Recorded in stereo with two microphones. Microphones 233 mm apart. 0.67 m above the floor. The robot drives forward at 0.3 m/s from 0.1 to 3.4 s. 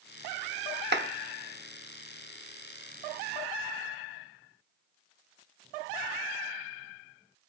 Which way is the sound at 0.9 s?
45° right (ahead or behind).